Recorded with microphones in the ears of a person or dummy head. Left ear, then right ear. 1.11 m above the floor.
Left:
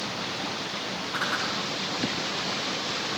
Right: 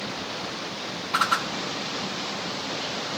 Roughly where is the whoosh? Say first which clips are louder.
Right 6 dB; right.